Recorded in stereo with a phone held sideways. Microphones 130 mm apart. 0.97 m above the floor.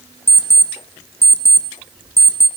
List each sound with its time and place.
0.3 s an alarm clock: 20° left (ahead or behind), 0.6 m